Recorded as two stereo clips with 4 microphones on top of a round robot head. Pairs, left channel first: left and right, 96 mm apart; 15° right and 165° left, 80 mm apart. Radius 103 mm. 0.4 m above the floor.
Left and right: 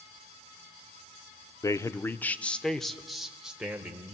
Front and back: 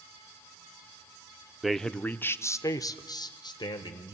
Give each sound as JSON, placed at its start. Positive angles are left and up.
{"t": 1.6, "sound": "a man speaking", "azimuth_deg": 80, "distance_m": 0.8}